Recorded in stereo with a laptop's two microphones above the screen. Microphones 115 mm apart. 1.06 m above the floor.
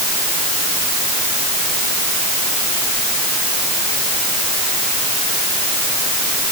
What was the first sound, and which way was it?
Only background noise.